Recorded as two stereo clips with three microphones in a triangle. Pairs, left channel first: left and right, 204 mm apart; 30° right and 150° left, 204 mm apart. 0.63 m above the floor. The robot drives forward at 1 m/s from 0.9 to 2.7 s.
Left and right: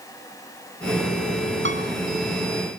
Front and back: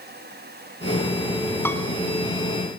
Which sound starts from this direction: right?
A piano, at 1.6 s.